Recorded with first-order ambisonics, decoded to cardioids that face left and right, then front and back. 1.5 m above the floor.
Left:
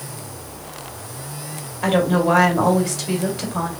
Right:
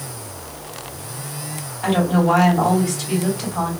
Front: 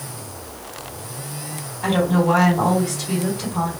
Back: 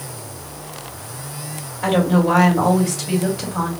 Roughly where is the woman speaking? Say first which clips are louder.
Left 1 dB, back 1 dB; behind left.